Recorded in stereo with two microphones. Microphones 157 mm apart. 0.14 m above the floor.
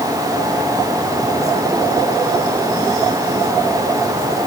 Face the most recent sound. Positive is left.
No sound to turn to.